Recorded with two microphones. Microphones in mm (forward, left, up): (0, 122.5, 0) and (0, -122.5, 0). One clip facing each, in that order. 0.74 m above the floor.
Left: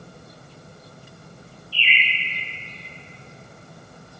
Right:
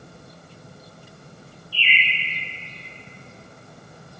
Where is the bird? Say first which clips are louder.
Even; 25° left (ahead or behind), 1.1 m.